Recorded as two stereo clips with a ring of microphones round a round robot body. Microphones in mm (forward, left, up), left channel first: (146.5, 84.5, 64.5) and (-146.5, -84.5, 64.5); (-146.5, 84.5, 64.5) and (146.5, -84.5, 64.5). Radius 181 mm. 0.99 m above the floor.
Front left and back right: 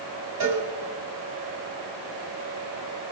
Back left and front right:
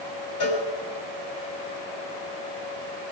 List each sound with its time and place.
0.4 s a cowbell: straight behind, 7.5 m